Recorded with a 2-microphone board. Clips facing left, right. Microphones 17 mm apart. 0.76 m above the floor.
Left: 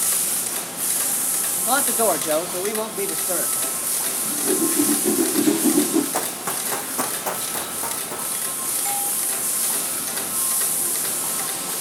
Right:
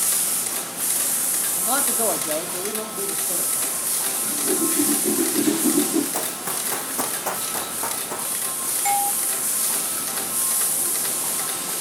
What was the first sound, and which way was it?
A man speaking, 10° left (ahead or behind).